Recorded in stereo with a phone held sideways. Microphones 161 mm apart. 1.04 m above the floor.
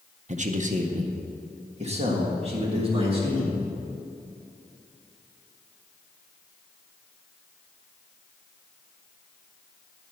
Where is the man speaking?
50° right (ahead or behind), 0.6 m; by 3.6 s 35° right (ahead or behind), 2.5 m.